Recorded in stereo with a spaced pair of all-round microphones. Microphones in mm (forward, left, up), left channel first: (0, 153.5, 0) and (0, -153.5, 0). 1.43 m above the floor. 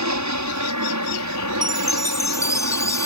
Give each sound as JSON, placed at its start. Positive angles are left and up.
{"t": 0.0, "sound": "an aircraft", "side_deg": -65}
{"t": 1.6, "sound": "a chime", "side_deg": 10}